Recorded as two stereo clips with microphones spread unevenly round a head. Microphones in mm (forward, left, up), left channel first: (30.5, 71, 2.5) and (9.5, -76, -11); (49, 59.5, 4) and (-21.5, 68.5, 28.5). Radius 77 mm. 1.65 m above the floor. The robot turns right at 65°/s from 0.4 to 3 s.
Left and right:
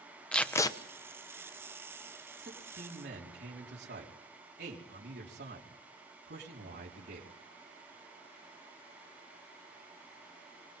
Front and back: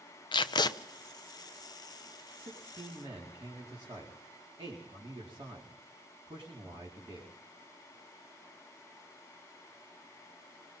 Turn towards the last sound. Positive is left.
turn(degrees=-125)